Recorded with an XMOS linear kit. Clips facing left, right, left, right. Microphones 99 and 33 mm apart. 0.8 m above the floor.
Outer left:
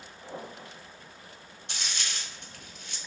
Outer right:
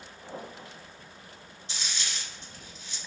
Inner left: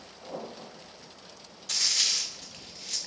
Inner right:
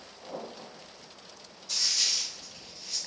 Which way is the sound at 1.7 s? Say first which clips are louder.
Outer left 1 dB, inner left 2 dB; 60° left (ahead or behind).